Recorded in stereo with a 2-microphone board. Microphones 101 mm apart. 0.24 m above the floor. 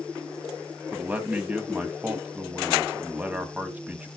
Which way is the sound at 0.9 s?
15° right (ahead or behind).